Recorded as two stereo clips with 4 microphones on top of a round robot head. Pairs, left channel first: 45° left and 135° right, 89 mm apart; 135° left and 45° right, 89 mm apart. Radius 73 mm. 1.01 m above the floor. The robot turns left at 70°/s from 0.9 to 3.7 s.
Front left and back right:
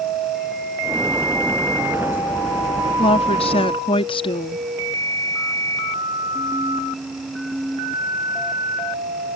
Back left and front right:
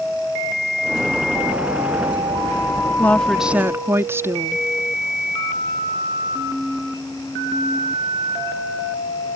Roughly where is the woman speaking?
Left.